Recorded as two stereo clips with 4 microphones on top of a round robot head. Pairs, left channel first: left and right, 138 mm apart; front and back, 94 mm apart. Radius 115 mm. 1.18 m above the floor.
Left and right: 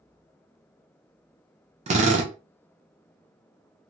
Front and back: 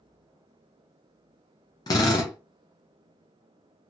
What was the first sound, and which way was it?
A drill, 50° right.